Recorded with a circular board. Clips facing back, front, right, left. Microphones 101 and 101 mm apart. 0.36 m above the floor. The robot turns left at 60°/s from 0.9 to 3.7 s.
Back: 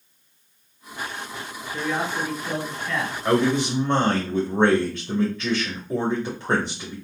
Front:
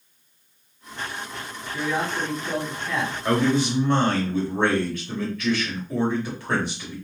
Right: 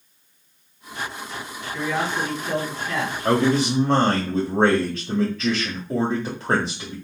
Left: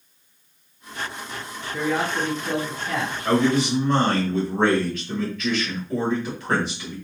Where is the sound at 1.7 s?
145° left, 3 m; by 3.1 s 55° left, 3 m.